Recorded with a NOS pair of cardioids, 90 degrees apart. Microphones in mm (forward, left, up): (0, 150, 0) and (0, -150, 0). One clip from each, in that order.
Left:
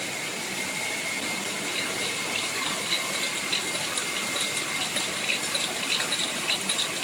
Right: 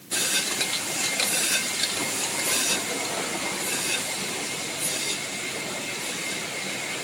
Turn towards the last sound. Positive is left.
No sound to turn to.